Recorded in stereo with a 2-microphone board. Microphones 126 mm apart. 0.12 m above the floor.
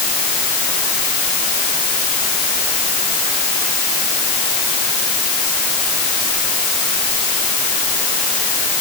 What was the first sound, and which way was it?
Only background noise.